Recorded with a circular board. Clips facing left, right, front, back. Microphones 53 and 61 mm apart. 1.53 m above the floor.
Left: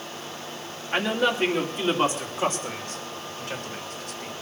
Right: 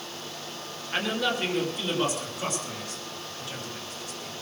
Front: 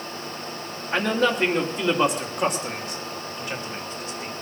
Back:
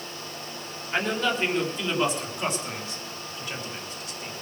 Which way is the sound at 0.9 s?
20° left.